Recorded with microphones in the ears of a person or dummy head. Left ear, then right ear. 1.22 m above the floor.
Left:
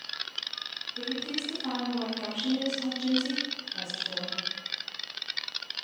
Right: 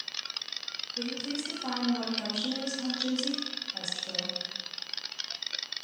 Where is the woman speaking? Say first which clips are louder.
Left 2 dB; 65° right (ahead or behind), 1.7 m.